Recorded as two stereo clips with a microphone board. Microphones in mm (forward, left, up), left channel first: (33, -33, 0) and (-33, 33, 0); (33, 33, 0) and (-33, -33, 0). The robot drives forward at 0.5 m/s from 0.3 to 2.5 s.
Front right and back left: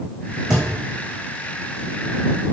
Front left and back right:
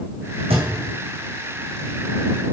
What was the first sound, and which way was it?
A thud, 140° right.